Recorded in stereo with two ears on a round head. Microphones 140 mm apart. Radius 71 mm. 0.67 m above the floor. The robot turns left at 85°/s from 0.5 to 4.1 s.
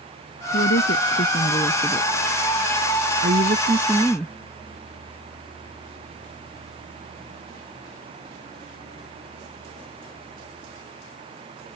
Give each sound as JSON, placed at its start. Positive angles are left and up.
{"t": 0.5, "sound": "a woman speaking", "side_deg": 65}